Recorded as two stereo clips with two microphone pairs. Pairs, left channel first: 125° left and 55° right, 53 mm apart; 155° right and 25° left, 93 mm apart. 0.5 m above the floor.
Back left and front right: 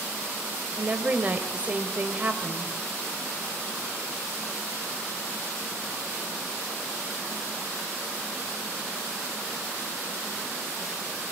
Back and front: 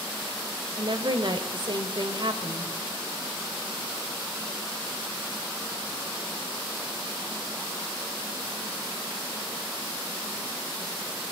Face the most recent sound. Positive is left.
turn(degrees=0)